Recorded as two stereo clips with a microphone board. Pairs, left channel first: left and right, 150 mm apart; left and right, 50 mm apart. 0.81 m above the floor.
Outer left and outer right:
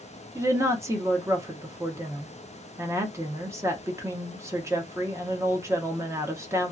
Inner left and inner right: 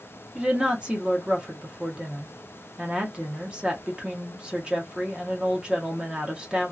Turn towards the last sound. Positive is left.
turn(degrees=-20)  # may be behind; listen again after turning